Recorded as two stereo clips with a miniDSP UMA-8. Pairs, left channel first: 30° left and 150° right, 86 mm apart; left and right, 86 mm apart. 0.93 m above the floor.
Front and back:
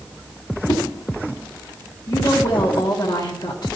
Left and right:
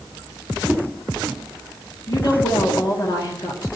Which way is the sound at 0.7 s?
15° right.